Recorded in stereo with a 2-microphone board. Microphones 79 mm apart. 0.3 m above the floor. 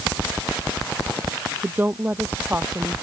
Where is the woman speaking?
20° right (ahead or behind); by 2.9 s 25° right (ahead or behind).